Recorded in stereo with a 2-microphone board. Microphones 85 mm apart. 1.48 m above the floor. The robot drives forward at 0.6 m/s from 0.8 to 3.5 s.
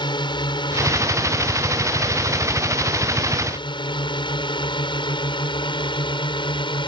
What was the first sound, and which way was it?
A drone, 65° left (ahead or behind).